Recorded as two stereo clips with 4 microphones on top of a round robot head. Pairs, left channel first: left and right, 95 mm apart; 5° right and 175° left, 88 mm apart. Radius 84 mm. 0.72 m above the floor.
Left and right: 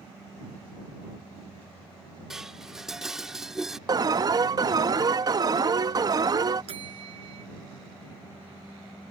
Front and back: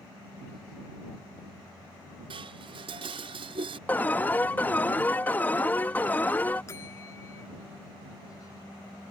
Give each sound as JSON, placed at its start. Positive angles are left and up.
{"t": 2.3, "sound": "dishes clattering", "azimuth_deg": -175}
{"t": 3.9, "sound": "an alarm", "azimuth_deg": -70}
{"t": 6.7, "sound": "a bell", "azimuth_deg": -70}